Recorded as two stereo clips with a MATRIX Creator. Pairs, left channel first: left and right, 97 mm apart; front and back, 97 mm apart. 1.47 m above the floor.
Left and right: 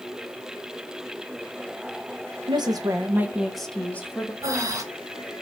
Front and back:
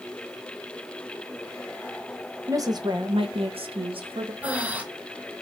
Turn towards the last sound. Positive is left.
turn(degrees=-115)